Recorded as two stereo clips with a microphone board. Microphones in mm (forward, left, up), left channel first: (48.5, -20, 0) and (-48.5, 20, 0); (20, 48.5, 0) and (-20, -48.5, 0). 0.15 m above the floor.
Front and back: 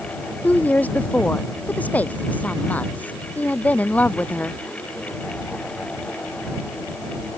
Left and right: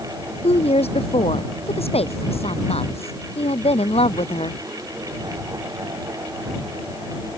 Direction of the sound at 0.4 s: 55° left.